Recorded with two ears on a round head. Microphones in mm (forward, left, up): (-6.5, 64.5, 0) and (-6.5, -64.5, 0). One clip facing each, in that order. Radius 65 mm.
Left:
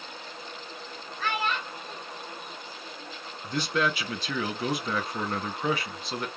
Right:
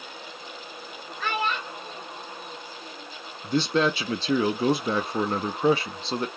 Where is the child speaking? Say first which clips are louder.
Right 2 dB; 80° right, 1.8 m; by 3.2 s 55° right (ahead or behind), 2 m.